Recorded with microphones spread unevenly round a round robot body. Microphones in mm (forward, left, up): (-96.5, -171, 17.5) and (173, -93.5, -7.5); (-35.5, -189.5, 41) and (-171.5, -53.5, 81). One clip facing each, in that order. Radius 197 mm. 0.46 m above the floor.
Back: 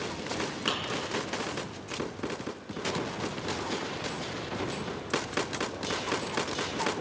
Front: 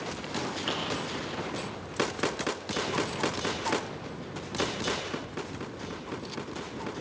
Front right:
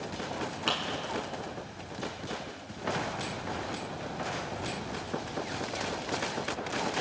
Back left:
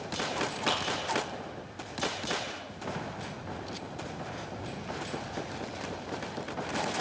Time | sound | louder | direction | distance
0.7 | a clap | even, back left 2 dB | 135° right | 5.5 m